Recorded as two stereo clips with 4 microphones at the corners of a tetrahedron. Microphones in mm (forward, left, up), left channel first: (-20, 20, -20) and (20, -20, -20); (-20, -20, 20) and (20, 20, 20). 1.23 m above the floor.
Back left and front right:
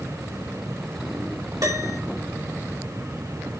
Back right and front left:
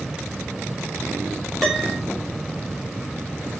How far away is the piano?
About 5.5 m.